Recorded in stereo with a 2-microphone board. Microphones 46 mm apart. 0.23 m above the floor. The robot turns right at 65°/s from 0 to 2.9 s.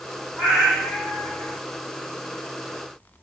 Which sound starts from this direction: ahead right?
A cat meowing, at 0.4 s.